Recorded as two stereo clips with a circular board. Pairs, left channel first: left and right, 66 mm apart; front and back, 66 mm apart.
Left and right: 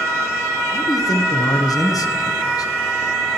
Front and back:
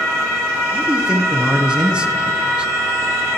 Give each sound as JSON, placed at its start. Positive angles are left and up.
{"t": 0.7, "sound": "a man speaking", "azimuth_deg": 105, "distance_m": 0.9}